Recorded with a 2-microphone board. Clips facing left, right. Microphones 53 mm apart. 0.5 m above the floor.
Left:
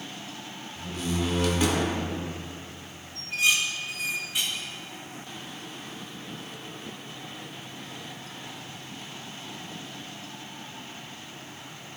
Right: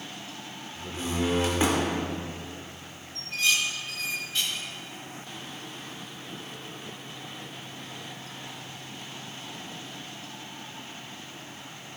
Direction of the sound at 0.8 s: 30° right (ahead or behind).